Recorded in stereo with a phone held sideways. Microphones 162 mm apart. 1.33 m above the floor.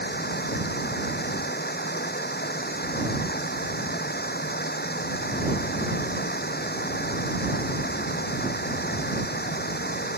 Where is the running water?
80° left.